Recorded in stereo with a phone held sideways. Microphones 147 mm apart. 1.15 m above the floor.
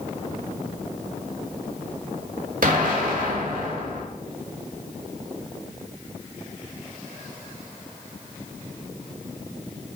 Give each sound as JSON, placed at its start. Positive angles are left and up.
{"t": 2.6, "sound": "an explosion", "side_deg": -65, "distance_m": 1.1}